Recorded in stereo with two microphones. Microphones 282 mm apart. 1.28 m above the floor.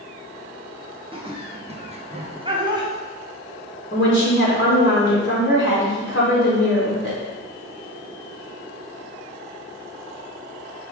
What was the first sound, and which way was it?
Laughter, 20° right (ahead or behind).